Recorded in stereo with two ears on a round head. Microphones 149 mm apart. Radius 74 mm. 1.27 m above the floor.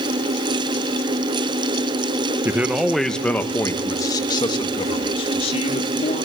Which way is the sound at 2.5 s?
15° right (ahead or behind).